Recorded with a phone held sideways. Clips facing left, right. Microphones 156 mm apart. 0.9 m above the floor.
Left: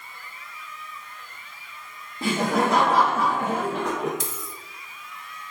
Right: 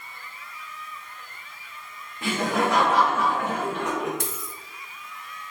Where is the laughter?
35° left (ahead or behind), 0.8 m.